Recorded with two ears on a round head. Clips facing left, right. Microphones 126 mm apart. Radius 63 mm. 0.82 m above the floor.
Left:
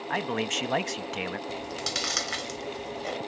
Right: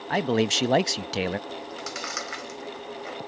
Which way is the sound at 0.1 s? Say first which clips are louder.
Right 7 dB; 40° right (ahead or behind).